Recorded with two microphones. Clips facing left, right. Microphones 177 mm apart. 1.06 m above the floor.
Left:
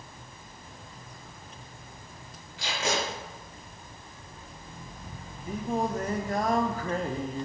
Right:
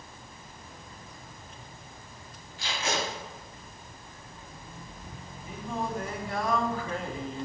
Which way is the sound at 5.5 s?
40° left (ahead or behind).